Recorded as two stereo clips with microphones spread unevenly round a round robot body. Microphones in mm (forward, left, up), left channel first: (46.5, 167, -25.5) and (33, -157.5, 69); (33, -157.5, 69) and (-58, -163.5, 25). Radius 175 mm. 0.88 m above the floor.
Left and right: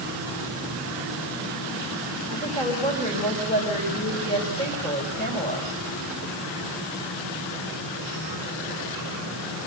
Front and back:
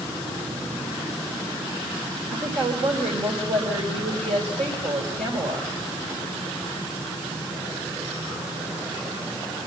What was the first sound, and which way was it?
A woman speaking, 160° left.